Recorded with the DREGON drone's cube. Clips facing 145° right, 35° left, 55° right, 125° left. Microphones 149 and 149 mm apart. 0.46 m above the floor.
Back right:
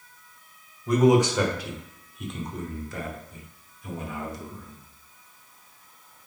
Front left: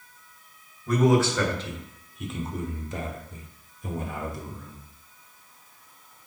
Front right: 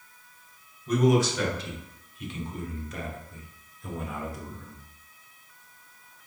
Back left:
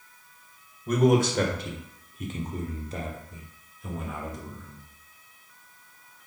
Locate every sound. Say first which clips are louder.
0.9 s a man speaking: back right 2 dB, back left 1 dB; 145° left, 1.9 m; by 4.8 s 20° left, 1.6 m